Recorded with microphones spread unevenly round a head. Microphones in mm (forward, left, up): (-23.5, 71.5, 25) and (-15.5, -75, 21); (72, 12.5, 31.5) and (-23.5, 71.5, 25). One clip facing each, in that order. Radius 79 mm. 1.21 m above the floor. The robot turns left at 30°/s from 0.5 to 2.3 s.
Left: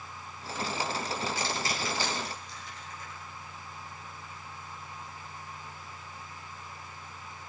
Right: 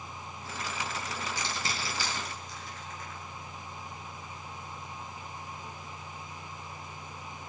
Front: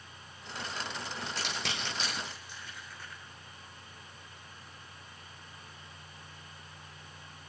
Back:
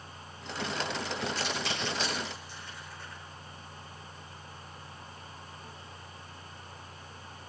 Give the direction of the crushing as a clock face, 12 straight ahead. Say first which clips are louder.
Left 3 dB, back 4 dB; 12 o'clock.